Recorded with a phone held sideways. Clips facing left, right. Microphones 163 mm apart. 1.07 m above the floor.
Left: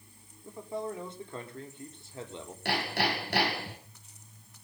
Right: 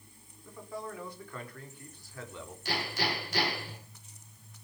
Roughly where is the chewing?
No chewing in this recording.